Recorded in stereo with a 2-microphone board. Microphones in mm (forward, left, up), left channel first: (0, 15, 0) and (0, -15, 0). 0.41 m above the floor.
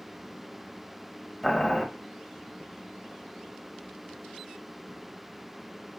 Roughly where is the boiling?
Centre.